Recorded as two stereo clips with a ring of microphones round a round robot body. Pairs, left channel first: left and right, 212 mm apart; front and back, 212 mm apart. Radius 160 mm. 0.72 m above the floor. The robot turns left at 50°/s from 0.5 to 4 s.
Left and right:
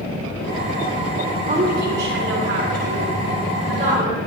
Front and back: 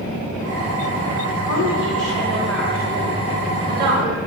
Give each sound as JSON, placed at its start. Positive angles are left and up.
{"t": 1.4, "sound": "a woman speaking", "azimuth_deg": -35, "distance_m": 8.5}